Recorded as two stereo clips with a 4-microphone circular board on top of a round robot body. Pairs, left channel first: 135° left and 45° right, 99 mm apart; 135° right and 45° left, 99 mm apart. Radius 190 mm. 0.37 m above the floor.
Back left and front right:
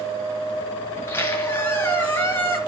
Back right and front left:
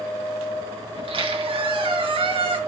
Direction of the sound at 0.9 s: 65° left.